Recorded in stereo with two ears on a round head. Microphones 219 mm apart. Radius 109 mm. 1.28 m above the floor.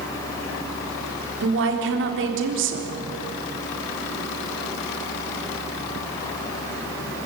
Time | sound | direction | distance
1.4 | a woman speaking | 55° right (ahead or behind) | 4 m